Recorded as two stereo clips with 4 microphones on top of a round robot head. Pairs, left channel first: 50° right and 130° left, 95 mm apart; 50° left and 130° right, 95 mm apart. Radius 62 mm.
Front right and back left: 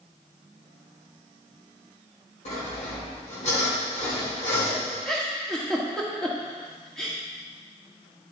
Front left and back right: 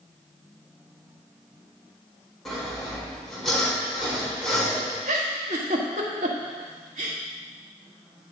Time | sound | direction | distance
2.5 | sawing | 40° right | 4 m
5.0 | a giggle | 135° right | 1.3 m